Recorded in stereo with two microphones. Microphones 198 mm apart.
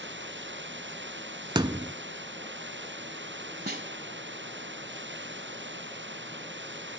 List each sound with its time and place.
0.0 s running water: 70° right (ahead or behind)
1.6 s a thud: 25° right (ahead or behind)
3.7 s a snare drum: 55° right (ahead or behind)